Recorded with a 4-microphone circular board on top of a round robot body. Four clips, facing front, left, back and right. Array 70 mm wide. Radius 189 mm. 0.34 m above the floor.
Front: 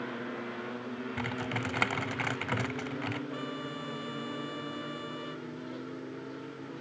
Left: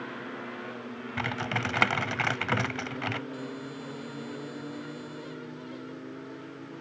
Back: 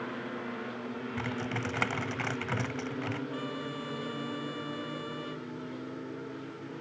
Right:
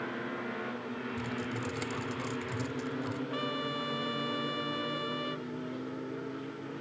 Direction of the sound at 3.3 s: 90° right.